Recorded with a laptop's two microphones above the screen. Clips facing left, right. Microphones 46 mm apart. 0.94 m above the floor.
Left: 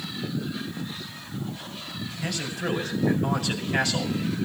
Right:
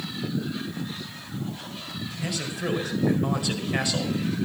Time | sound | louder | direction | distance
2.2 | a man speaking | even | 10° right (ahead or behind) | 5.5 m